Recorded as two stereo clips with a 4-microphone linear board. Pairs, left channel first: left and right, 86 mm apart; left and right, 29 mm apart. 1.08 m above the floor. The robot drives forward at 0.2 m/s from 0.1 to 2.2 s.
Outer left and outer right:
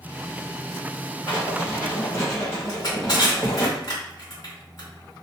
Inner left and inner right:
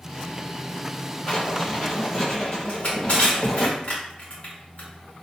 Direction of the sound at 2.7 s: 45° left (ahead or behind).